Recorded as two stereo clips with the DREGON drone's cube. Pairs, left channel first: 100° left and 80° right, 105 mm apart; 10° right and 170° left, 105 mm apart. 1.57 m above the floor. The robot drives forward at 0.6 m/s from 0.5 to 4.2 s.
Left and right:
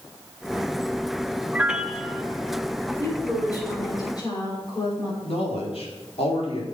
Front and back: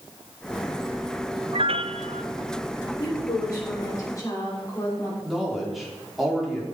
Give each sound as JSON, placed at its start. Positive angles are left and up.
{"t": 1.5, "sound": "a piano", "azimuth_deg": -160, "distance_m": 0.6}
{"t": 3.0, "sound": "a woman speaking", "azimuth_deg": 45, "distance_m": 6.5}
{"t": 5.2, "sound": "a man speaking", "azimuth_deg": 80, "distance_m": 4.5}